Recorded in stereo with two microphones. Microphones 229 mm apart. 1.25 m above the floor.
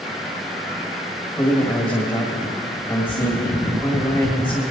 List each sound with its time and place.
1.4 s a man speaking: 20° left (ahead or behind), 1.7 m